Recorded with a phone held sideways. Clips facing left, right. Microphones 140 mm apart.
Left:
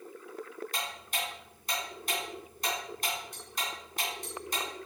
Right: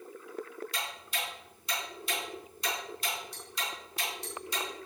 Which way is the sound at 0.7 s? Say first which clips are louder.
Left 3 dB; 45° left (ahead or behind).